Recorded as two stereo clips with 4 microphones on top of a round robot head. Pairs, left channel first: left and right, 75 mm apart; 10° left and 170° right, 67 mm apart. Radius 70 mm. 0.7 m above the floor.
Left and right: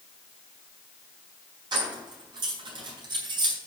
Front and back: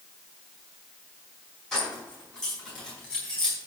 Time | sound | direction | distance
1.7 | keys jangling | 70° right | 5 m